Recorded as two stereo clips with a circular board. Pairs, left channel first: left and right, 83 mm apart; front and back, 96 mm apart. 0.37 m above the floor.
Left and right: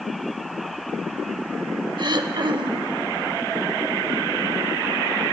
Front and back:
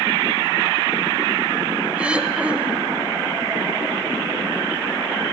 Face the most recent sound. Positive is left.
turn(degrees=-105)